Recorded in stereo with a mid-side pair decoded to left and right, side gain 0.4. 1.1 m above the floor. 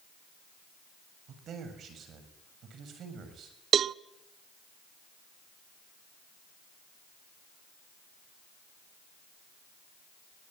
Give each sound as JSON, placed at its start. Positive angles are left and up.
{"t": 1.3, "sound": "a man speaking", "azimuth_deg": -70, "distance_m": 7.0}
{"t": 3.7, "sound": "a cowbell", "azimuth_deg": -60, "distance_m": 0.6}